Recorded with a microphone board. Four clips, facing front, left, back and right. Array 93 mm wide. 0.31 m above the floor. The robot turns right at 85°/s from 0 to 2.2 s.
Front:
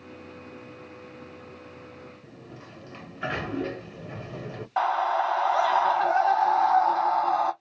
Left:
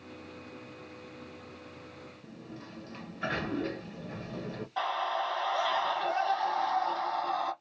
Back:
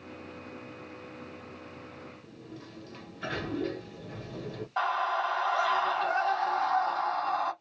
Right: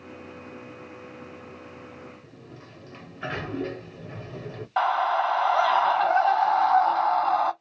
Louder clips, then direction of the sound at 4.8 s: Right 9 dB, front 5 dB; 70° right.